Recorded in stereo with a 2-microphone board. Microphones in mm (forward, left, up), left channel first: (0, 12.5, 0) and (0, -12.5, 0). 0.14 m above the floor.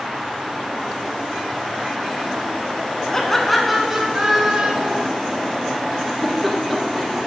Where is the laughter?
20° left (ahead or behind), 1.1 m; by 5.0 s 45° right (ahead or behind), 1.6 m.